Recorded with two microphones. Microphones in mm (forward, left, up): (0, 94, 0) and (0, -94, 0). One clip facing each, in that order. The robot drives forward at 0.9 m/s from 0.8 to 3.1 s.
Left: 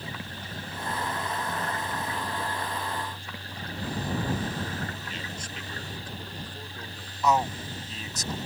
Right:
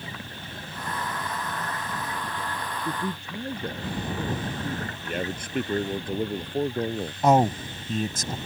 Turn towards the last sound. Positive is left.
turn(degrees=-50)  # may be behind; listen again after turning